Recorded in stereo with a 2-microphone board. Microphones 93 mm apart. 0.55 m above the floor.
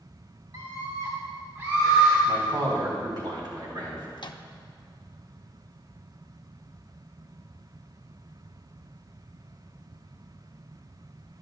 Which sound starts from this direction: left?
A microwave, at 4.2 s.